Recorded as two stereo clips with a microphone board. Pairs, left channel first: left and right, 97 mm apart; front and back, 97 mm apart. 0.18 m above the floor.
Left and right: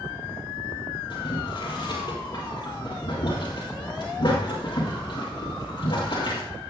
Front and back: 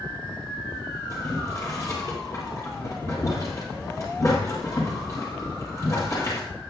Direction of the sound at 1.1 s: 55° left.